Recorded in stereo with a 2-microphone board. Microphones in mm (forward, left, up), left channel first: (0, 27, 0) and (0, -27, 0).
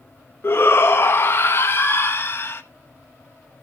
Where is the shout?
45° left (ahead or behind), 0.9 m.